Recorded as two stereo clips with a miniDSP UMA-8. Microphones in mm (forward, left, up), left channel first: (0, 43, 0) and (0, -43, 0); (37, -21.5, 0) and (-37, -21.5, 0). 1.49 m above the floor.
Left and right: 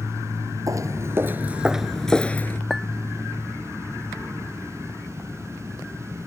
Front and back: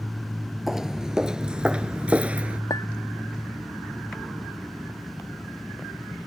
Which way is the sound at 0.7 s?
95° right.